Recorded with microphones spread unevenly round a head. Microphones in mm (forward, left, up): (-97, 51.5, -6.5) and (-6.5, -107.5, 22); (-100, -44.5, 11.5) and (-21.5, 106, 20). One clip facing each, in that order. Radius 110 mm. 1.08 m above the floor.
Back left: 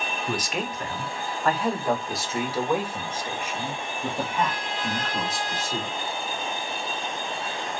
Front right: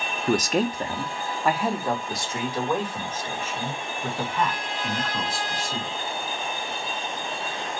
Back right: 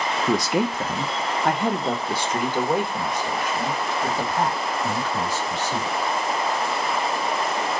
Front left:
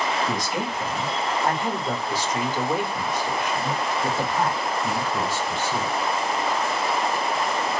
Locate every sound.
0.3 s a man speaking: 105° right, 0.8 m; by 6.1 s 175° right, 3.5 m